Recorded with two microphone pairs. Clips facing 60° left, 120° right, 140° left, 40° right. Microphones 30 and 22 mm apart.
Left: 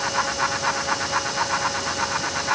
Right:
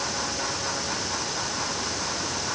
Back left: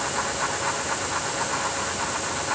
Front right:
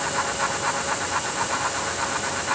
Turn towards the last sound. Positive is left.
No sound to turn to.